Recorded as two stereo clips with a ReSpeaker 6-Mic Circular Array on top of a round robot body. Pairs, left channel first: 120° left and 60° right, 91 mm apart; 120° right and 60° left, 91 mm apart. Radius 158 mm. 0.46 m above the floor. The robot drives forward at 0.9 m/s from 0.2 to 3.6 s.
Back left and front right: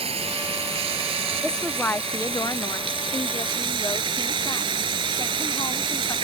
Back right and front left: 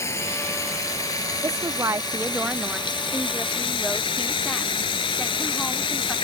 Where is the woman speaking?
40° left; by 6.2 s 160° left.